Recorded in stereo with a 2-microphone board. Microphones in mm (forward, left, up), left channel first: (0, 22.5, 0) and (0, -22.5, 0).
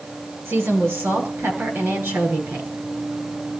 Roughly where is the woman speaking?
Right.